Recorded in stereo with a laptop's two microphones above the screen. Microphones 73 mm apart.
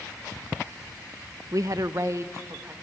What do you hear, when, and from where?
1.5 s a woman speaking: 45° right (ahead or behind), 0.5 m; by 2.7 s 35° right (ahead or behind), 1.3 m